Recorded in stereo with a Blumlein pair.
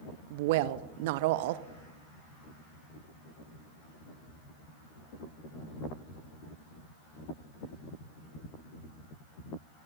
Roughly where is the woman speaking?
Ahead right.